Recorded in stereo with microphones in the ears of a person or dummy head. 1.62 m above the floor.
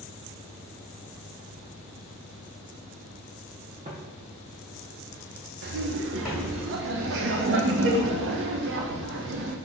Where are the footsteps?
35° right (ahead or behind), 3 m; by 6.6 s 5° left (ahead or behind), 3.5 m.